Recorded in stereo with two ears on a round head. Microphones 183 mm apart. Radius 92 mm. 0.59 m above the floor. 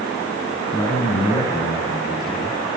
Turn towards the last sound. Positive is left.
turn(degrees=20)  # may be behind; listen again after turning